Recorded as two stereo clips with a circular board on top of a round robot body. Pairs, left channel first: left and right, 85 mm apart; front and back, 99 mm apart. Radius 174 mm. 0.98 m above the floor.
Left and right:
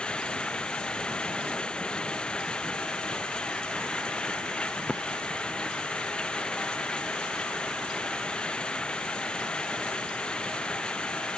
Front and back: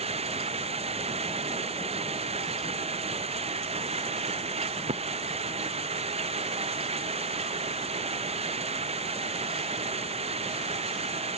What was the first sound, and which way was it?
Running water, 170° left.